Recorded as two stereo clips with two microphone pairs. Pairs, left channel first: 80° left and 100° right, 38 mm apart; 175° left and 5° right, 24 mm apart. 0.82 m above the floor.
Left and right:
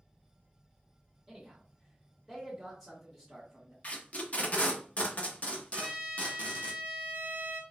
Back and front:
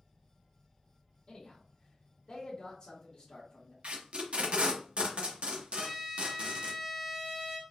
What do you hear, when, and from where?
1.3 s a man speaking: straight behind, 1.1 m
3.8 s tape being pulled: 30° left, 0.7 m
5.7 s a trumpet: 95° right, 1.0 m